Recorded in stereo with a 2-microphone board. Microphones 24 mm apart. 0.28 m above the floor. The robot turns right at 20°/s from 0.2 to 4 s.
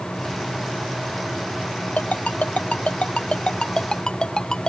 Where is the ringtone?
65° left (ahead or behind); by 4.7 s 25° left (ahead or behind).